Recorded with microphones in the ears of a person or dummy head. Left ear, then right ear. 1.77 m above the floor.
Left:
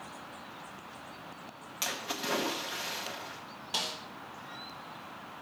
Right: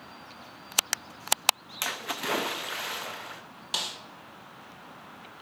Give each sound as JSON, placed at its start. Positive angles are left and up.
{"t": 1.8, "sound": "a splash", "side_deg": -20, "distance_m": 0.5}
{"t": 3.7, "sound": "a snare drum", "side_deg": -25, "distance_m": 0.7}